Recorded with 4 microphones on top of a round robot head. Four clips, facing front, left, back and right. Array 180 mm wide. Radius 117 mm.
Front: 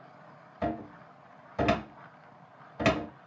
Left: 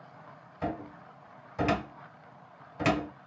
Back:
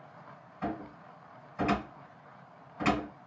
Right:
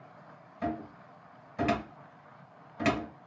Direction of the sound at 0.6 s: 10° left.